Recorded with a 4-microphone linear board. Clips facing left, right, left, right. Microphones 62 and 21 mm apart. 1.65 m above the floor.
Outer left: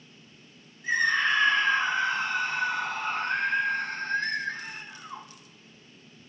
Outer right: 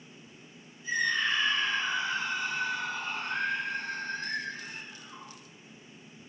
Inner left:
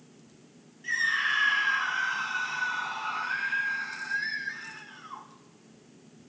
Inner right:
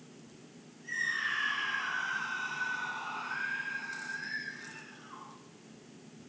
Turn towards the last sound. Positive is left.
turn(degrees=70)  # may be behind; listen again after turning